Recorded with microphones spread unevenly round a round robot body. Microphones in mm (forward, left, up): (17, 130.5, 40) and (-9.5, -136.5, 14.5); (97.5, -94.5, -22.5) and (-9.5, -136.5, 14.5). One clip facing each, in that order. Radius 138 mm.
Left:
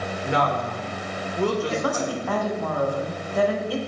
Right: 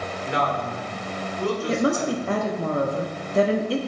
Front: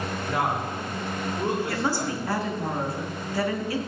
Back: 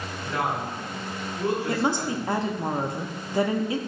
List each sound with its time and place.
0.2 s a woman speaking: 95° left, 2 m
1.7 s a woman speaking: 80° right, 0.9 m